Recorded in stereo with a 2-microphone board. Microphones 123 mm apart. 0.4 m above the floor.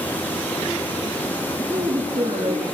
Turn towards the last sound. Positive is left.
turn(degrees=-50)  # may be behind; listen again after turning